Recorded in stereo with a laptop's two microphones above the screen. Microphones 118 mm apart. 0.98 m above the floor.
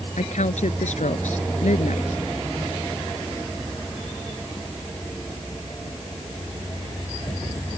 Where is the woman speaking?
85° left.